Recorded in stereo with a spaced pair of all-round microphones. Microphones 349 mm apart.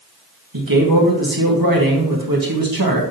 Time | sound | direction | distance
0.5 | a man speaking | 75° right (ahead or behind) | 1.8 m